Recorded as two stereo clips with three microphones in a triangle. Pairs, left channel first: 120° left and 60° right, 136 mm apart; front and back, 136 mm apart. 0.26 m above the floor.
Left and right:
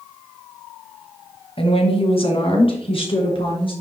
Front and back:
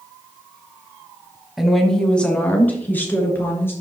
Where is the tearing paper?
No tearing paper in this recording.